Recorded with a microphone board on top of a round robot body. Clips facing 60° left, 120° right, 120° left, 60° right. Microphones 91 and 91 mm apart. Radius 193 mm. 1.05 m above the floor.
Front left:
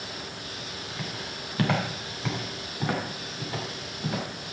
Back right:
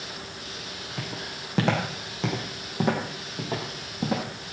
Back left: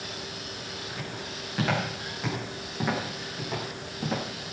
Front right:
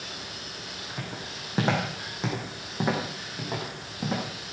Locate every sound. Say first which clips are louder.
1.0 s footsteps: back right 2 dB, back left 1 dB; 115° right, 5 m; by 4.2 s 150° right, 4 m